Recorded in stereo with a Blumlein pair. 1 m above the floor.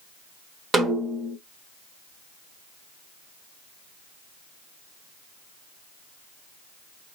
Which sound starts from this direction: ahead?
A snare drum, at 0.7 s.